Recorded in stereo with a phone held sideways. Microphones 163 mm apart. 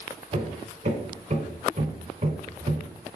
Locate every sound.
0.3 s hammering: 50° right (ahead or behind), 2.5 m